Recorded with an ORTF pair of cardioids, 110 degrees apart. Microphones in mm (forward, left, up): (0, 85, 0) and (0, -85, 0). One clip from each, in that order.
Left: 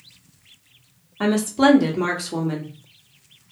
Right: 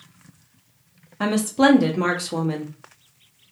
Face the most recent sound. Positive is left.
turn(degrees=-5)